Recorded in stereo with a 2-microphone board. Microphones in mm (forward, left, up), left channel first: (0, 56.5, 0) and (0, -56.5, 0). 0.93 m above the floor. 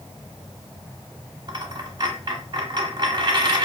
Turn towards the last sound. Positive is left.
turn(degrees=-40)  # may be behind; listen again after turning